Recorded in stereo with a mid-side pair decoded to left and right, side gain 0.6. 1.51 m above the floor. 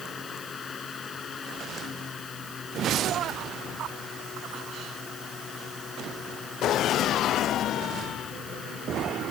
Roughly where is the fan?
Ahead left.